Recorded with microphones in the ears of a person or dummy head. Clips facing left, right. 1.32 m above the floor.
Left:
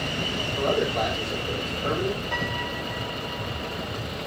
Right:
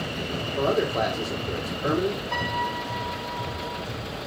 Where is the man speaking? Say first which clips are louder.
Right 1 dB; 35° right (ahead or behind), 3 m.